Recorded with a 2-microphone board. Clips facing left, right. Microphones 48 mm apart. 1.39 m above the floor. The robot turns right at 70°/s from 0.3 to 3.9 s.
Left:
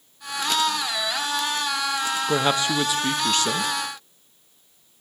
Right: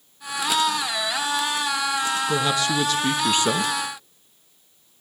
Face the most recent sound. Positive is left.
turn(degrees=-125)